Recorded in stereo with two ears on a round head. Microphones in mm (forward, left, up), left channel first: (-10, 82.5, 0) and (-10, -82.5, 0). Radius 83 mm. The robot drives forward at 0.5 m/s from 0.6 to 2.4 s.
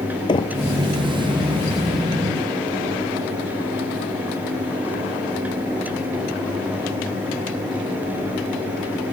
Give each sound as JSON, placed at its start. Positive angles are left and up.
{"t": 0.3, "sound": "knocking", "side_deg": 25}